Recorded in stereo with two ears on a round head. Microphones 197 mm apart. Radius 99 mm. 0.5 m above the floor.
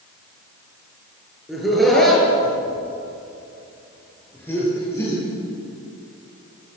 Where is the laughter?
Centre (ahead or behind), 8 m; by 5.2 s 15° left (ahead or behind), 10 m.